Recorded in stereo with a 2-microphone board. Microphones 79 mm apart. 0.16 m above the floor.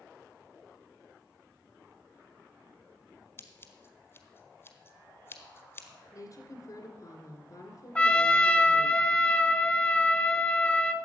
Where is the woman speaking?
45° left (ahead or behind), 1.8 m.